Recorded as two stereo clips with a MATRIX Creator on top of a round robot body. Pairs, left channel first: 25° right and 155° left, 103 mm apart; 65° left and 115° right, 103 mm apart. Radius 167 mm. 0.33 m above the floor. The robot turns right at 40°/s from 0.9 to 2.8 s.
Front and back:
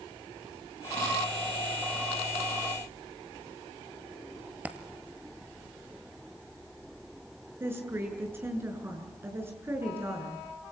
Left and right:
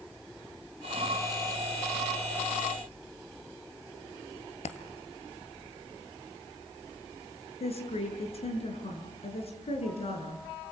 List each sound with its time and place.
4.7 s a dropped coin: 80° left, 1.5 m
7.6 s a woman speaking: 90° left, 6.5 m